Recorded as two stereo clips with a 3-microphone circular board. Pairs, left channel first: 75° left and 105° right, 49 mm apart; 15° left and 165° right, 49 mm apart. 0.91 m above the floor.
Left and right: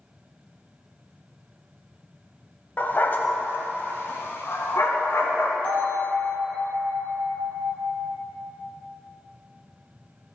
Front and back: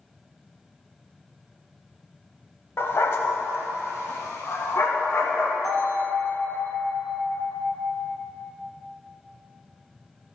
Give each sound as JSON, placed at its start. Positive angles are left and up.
{"t": 2.8, "sound": "a dog barking", "azimuth_deg": 25, "distance_m": 1.0}
{"t": 5.6, "sound": "a bell", "azimuth_deg": 5, "distance_m": 2.5}